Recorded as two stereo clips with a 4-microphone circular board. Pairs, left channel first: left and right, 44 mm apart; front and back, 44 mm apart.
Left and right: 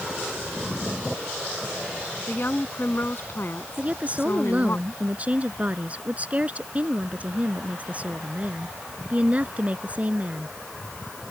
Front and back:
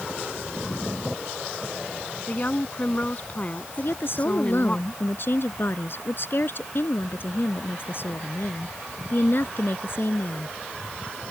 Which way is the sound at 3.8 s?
30° right.